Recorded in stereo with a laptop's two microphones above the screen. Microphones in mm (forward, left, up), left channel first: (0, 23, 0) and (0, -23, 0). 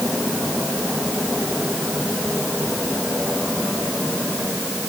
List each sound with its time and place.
Only background noise.